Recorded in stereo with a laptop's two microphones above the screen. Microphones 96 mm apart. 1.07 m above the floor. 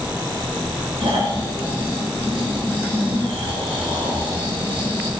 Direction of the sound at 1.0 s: 85° right.